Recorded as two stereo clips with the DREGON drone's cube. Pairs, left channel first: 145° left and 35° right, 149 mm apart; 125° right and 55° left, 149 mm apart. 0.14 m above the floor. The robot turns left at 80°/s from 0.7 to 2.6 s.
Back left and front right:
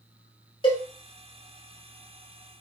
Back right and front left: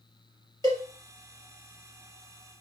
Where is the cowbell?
170° right, 2.5 m; by 0.8 s 175° left, 2.5 m.